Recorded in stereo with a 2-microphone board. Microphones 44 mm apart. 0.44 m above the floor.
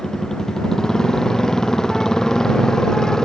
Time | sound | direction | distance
0.0 | a motorcycle | 15° left (ahead or behind) | ?